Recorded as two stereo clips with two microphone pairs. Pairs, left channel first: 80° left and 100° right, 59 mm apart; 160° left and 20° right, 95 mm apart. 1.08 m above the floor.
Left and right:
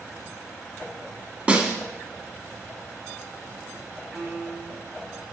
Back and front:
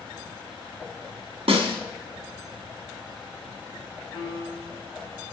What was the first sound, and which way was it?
A snare drum, 35° right.